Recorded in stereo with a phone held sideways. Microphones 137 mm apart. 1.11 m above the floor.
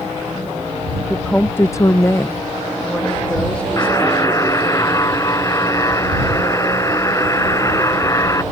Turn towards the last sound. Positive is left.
turn(degrees=25)  # may be behind; listen again after turning